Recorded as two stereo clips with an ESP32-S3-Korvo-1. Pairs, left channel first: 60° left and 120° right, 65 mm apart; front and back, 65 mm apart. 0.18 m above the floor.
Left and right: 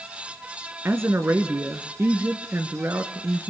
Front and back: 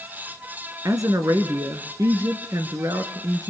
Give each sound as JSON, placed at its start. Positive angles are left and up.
{"t": 0.8, "sound": "a woman speaking", "azimuth_deg": -165, "distance_m": 2.5}